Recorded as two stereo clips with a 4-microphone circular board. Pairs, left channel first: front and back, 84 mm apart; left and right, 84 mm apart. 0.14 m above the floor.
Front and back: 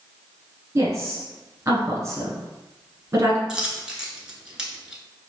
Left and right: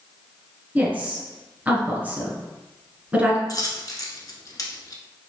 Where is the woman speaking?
150° right, 1.5 m.